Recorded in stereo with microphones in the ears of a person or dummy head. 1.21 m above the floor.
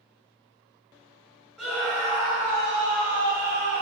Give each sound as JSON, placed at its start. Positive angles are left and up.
{"t": 1.6, "sound": "a scream", "side_deg": 0, "distance_m": 6.0}